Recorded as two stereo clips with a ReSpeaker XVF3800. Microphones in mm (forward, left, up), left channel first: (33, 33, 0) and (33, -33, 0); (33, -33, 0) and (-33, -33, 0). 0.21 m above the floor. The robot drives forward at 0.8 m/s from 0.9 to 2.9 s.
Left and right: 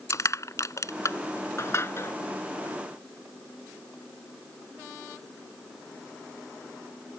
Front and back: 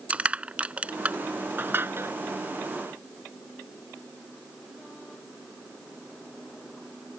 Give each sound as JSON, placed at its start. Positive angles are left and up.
{"t": 0.1, "sound": "crushing", "azimuth_deg": 115}